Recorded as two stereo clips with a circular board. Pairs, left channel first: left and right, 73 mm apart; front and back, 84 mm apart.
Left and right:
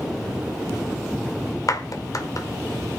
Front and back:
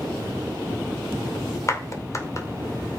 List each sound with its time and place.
1.7 s a clap: 50° left, 2 m